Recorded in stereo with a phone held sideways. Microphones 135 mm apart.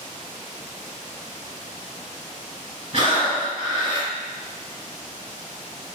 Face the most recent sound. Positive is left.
turn(degrees=-50)  # may be behind; listen again after turning